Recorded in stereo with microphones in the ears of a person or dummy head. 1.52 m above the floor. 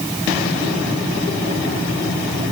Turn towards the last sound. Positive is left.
No sound to turn to.